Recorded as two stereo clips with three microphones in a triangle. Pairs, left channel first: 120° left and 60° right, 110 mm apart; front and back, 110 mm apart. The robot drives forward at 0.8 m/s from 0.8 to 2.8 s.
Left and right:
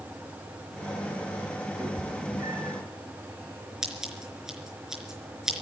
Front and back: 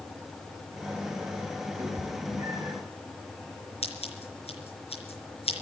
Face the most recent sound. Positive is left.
turn(degrees=25)